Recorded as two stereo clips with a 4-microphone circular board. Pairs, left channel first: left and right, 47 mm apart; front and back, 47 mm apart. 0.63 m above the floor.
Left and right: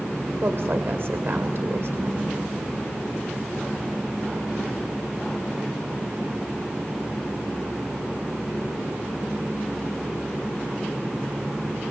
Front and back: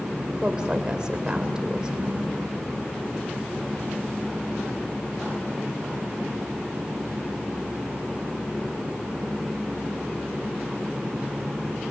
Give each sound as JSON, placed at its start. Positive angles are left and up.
{"t": 0.4, "sound": "a woman speaking", "azimuth_deg": -110, "distance_m": 2.5}